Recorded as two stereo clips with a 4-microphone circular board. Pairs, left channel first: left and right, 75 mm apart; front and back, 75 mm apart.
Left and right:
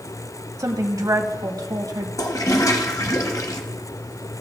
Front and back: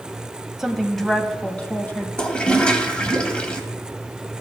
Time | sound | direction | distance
0.6 | a woman speaking | 100° right | 1.2 m
2.2 | a toilet flushing | 75° left | 1.2 m